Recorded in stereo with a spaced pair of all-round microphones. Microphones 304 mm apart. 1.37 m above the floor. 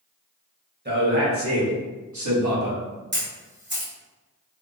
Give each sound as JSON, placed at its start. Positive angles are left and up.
{"t": 0.8, "sound": "a man speaking", "side_deg": -35, "distance_m": 1.2}
{"t": 3.1, "sound": "a camera shutter", "side_deg": -35, "distance_m": 1.4}